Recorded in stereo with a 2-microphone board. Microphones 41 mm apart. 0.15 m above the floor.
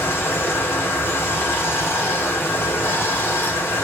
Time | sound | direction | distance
0.0 | running water | 75° left (ahead or behind) | 2 m